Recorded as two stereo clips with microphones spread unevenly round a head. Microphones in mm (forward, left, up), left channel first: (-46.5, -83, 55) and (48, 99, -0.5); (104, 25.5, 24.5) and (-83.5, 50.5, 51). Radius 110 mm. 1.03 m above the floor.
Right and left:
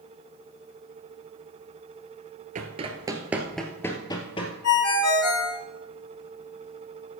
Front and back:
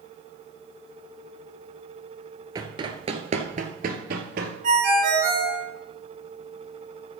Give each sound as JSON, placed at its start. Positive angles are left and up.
{"t": 2.5, "sound": "running footsteps", "azimuth_deg": 120, "distance_m": 1.3}
{"t": 4.6, "sound": "a ringtone", "azimuth_deg": -135, "distance_m": 3.0}